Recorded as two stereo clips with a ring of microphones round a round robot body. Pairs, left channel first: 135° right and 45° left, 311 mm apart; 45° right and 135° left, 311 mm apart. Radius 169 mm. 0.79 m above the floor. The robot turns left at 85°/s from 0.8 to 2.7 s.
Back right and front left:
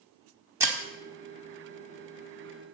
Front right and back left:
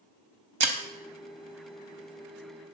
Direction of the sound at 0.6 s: 125° left.